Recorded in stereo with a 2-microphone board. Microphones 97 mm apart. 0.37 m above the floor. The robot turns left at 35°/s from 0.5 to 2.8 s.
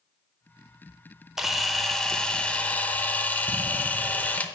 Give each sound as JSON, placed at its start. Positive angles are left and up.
{"t": 1.4, "sound": "a camera shutter", "side_deg": -5, "distance_m": 0.7}